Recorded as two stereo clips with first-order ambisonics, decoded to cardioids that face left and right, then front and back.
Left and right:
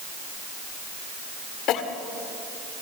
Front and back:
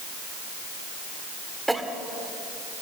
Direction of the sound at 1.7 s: 95° left.